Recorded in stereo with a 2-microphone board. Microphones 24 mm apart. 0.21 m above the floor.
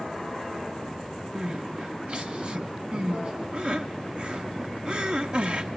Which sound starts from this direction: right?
Crying, at 1.4 s.